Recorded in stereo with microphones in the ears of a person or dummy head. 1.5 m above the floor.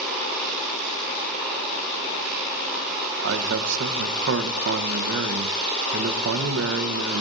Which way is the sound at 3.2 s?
65° right (ahead or behind).